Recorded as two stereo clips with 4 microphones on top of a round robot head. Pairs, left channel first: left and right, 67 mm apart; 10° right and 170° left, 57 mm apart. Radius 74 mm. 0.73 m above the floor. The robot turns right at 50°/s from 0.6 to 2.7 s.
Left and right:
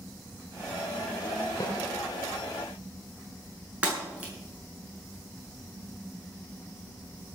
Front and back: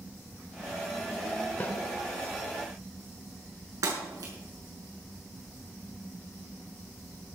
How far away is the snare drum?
About 2 m.